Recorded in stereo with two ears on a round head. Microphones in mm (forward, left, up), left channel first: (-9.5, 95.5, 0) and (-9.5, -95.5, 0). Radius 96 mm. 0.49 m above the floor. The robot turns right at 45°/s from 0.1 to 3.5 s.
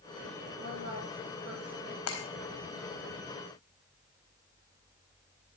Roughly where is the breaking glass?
Left.